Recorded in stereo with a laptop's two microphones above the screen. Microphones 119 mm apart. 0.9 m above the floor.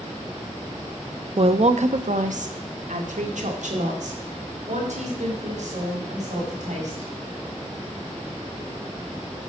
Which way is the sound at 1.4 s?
45° right (ahead or behind).